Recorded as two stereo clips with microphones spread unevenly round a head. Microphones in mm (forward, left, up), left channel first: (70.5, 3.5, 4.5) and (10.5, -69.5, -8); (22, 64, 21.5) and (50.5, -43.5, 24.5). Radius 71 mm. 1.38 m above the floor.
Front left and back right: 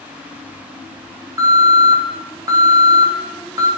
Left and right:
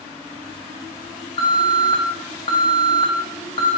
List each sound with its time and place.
1.4 s an alarm: 165° left, 3 m